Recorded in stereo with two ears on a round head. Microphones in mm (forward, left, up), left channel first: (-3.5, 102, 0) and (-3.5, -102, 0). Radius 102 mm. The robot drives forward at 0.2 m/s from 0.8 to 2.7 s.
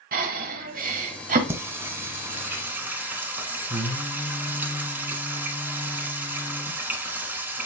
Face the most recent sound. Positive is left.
turn(degrees=-10)  # may be behind; listen again after turning